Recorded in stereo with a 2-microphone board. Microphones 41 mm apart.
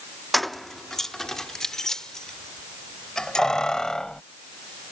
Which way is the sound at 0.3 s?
Centre (ahead or behind).